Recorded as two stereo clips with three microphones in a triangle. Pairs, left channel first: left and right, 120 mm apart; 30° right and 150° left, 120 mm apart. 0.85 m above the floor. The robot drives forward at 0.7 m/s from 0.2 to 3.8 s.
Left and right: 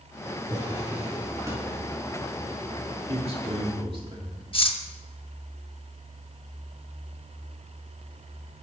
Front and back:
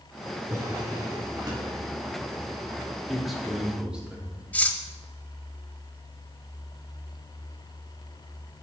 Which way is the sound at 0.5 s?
150° right.